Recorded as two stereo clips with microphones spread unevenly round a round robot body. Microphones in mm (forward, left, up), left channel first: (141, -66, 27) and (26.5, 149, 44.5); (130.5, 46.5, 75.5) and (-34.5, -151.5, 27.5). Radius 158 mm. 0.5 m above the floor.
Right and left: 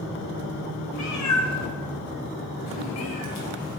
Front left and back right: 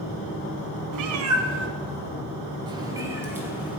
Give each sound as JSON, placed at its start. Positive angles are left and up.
{"t": 0.9, "sound": "a cat meowing", "azimuth_deg": -125, "distance_m": 0.8}